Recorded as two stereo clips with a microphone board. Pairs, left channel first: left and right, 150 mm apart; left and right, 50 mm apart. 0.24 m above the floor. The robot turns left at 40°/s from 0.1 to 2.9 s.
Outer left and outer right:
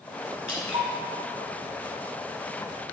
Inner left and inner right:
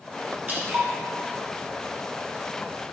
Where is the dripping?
40° right (ahead or behind), 1.4 m; by 0.9 s 35° right (ahead or behind), 1.4 m.